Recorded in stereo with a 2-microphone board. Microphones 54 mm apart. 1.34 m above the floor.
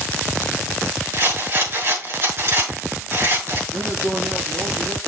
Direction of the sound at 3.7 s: 85° right.